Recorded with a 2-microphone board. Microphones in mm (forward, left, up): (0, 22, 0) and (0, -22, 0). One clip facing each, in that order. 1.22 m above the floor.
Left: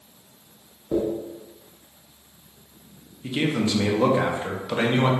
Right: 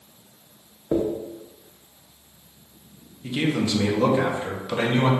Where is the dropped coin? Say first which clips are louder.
Right 1 dB; 30° right (ahead or behind), 0.6 m.